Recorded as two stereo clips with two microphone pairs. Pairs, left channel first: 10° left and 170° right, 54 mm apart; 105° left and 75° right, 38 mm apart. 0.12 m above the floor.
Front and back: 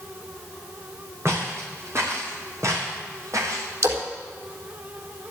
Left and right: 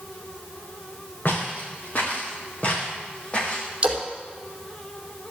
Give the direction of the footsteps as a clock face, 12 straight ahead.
7 o'clock.